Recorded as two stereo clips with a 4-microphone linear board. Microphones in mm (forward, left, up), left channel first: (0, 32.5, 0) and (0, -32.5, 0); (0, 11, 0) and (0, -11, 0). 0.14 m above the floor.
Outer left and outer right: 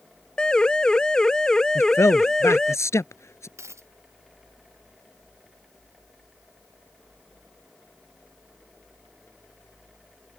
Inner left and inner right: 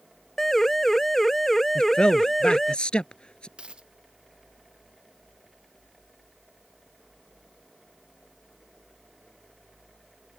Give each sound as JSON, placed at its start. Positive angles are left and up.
{"t": 0.4, "sound": "a siren", "side_deg": 10}
{"t": 1.8, "sound": "a man speaking", "side_deg": 45}
{"t": 3.6, "sound": "a dropped coin", "side_deg": -50}